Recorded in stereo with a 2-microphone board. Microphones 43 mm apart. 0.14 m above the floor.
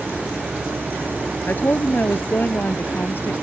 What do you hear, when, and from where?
1.5 s a woman speaking: 50° left (ahead or behind); by 3.3 s 60° left (ahead or behind)